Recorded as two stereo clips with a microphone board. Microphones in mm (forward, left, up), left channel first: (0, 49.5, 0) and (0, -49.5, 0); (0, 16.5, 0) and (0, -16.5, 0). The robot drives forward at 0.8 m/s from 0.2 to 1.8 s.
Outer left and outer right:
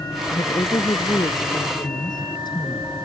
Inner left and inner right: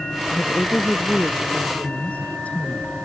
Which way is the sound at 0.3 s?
50° left (ahead or behind).